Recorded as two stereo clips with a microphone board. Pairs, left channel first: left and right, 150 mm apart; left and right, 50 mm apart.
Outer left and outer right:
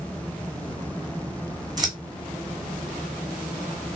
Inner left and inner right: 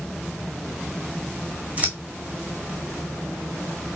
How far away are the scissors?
About 1.6 m.